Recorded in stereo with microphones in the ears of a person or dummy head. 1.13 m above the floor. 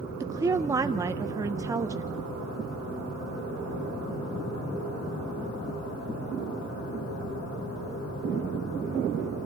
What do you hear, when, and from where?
0.2 s a woman speaking: 15° right (ahead or behind), 0.5 m